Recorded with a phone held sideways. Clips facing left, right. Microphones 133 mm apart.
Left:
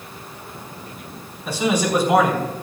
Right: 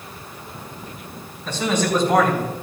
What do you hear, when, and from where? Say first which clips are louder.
1.4 s a man speaking: left 1 dB; 10° left (ahead or behind), 4.5 m